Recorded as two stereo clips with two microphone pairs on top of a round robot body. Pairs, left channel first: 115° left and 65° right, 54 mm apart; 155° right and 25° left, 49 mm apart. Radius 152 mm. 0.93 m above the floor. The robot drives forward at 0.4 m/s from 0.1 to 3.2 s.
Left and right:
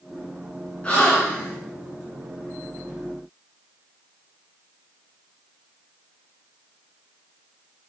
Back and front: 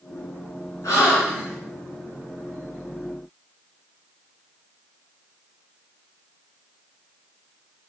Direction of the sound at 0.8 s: Straight behind.